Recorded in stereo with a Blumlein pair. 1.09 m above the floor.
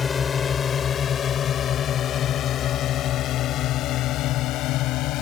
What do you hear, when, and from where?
0.0 s a drone: 20° left; by 5.2 s 40° left